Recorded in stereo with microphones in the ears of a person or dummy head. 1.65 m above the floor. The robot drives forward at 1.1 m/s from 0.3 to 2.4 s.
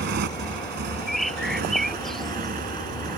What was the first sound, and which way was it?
A motorcycle, 55° right (ahead or behind).